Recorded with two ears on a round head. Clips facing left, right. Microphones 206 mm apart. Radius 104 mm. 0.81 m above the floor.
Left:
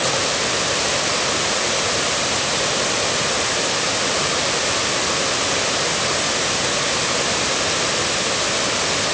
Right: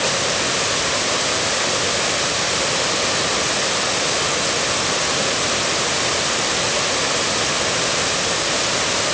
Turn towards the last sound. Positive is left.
No sound to turn to.